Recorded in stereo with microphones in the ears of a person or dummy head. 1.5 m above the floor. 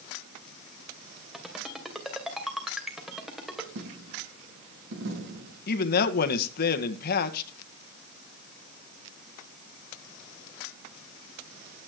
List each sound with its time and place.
1.3 s a ringtone: 5° right (ahead or behind), 2.5 m
3.8 s a dropped coin: 65° right (ahead or behind), 5 m
5.7 s a man speaking: 55° left (ahead or behind), 1.5 m